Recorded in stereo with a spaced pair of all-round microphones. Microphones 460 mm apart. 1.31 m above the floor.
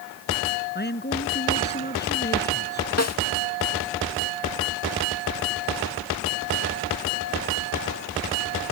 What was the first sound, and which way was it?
A man speaking, 20° left (ahead or behind).